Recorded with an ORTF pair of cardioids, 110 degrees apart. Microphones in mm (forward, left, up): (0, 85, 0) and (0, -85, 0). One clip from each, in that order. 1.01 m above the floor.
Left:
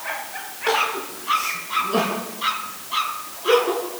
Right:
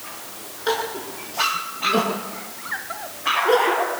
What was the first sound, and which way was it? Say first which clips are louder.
Crying: left 3 dB; 10° right.